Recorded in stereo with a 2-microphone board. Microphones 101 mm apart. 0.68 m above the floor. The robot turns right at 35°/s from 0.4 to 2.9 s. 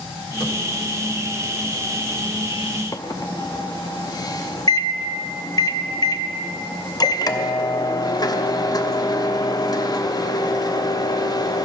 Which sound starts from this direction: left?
A microwave, at 2.9 s.